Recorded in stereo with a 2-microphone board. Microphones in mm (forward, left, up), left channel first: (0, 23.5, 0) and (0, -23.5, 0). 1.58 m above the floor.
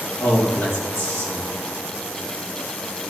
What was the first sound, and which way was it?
A man speaking, 70° left (ahead or behind).